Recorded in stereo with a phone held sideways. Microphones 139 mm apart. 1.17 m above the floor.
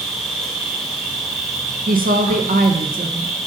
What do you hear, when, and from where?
0.0 s an insect: 5° left (ahead or behind), 1.3 m
1.9 s a woman speaking: 75° right (ahead or behind), 0.6 m